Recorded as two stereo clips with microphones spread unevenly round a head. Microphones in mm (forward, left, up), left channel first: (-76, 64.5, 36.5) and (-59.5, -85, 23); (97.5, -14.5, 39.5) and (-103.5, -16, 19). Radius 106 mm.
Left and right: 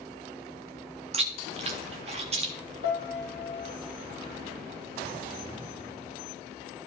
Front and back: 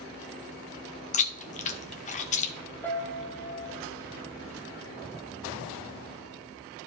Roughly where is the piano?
Left.